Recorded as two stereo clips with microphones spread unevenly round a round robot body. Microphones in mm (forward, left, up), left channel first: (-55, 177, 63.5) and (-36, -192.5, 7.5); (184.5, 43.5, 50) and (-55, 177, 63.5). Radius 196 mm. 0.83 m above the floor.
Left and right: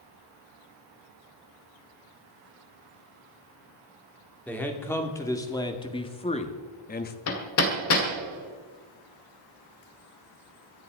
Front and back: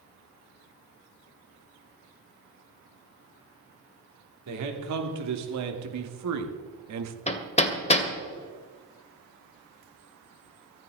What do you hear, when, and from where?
4.5 s a man speaking: straight behind, 2.5 m; by 7.2 s 160° left, 1.5 m
7.3 s hammering: 40° left, 2 m